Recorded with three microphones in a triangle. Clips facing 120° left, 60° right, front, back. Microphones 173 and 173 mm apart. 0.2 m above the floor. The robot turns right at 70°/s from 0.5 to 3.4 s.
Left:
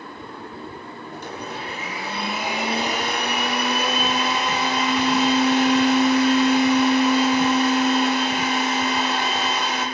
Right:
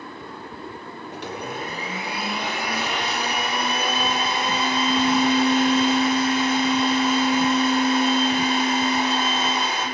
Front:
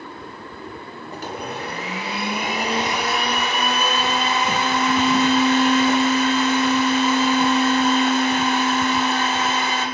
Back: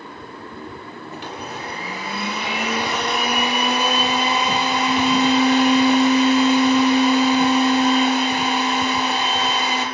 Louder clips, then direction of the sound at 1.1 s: Right 2 dB, front 3 dB; 55° right.